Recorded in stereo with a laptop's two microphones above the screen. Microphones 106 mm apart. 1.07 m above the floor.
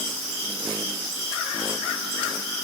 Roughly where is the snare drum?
I don't hear a snare drum.